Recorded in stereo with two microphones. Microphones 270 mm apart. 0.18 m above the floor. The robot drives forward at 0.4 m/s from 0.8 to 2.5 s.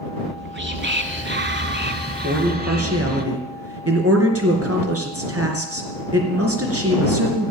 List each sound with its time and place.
0.2 s whispering: 45° right (ahead or behind), 1.3 m; by 3.2 s 35° right (ahead or behind), 1.5 m
2.2 s a man speaking: 60° right (ahead or behind), 3 m